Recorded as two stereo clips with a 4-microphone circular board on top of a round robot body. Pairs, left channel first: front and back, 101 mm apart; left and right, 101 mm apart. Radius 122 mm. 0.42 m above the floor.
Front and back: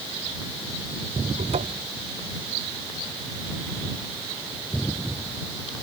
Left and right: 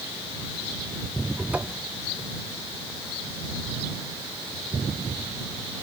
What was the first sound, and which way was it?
A cupboard door, 165° right.